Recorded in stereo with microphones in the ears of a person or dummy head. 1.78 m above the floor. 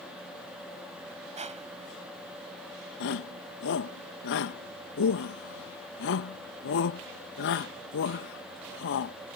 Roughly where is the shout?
Left.